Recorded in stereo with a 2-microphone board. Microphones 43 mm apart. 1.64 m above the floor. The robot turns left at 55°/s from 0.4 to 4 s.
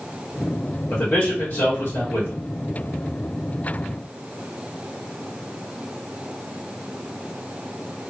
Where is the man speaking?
125° left, 1.4 m; by 2.4 s 45° left, 1.4 m.